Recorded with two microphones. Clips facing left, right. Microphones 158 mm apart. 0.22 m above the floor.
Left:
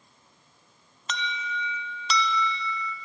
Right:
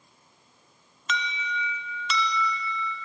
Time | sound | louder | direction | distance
1.1 | an alarm | right 1 dB | 35° left (ahead or behind) | 0.9 m